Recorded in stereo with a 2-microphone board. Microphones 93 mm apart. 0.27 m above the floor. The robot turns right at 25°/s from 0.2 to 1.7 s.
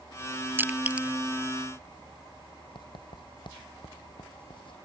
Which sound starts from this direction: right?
Crushing, at 0.6 s.